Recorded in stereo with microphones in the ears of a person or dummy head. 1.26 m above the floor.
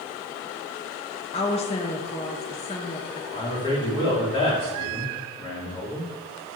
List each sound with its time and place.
1.3 s a woman speaking: 30° left (ahead or behind), 0.7 m
3.3 s a man speaking: 20° left (ahead or behind), 3 m